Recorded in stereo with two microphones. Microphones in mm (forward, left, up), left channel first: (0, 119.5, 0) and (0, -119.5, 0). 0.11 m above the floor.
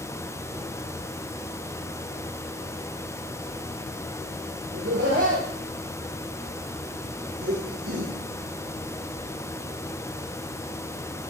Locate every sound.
4.7 s laughter: 70° right (ahead or behind), 5.5 m